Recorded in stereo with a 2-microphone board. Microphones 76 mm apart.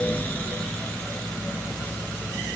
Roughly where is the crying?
I don't hear crying.